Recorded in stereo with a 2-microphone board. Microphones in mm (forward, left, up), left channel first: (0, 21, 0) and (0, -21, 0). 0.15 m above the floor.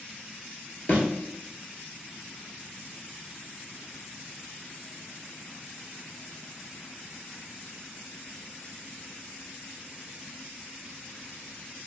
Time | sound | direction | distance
0.9 | a thud | 50° left (ahead or behind) | 1.0 m